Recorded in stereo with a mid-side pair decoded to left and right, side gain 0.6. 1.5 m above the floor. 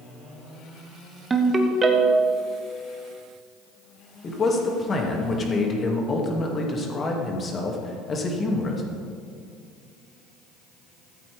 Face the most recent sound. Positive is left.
turn(degrees=35)